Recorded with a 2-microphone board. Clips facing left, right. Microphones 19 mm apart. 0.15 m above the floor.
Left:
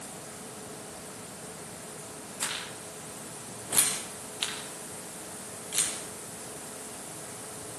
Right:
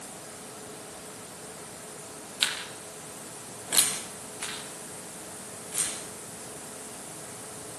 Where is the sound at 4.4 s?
70° left (ahead or behind), 5 m.